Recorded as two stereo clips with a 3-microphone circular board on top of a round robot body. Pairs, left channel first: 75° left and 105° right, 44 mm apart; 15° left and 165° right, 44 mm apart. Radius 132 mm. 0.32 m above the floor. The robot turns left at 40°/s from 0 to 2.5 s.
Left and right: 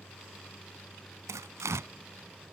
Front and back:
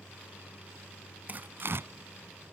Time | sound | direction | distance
0.0 | a vehicle | 50° left | ?
1.3 | tearing paper | 110° right | ?